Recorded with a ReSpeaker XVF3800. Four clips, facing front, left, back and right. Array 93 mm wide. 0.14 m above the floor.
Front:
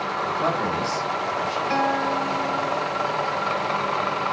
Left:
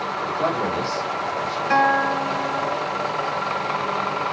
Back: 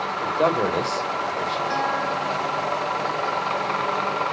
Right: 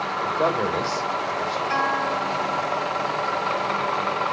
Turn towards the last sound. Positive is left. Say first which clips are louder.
# left 7 dB, front 4 dB
turn(degrees=95)